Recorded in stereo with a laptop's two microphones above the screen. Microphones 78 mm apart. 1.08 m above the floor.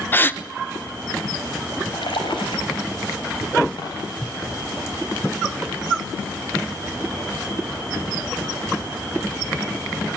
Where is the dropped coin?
55° left (ahead or behind), 7 m.